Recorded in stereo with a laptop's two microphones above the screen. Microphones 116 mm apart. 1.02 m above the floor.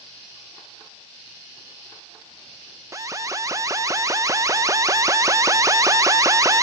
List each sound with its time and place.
2.9 s an alarm: 30° right (ahead or behind), 0.7 m